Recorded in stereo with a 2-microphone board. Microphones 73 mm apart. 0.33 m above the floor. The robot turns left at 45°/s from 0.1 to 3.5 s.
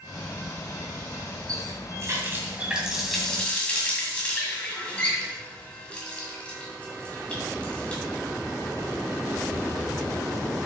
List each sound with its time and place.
1.5 s a running tap: 60° right (ahead or behind), 1.7 m; by 8.0 s 15° left (ahead or behind), 1.7 m